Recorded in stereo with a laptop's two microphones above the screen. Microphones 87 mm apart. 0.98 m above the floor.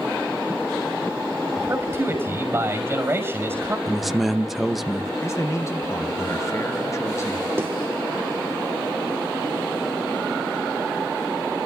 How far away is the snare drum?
About 3 m.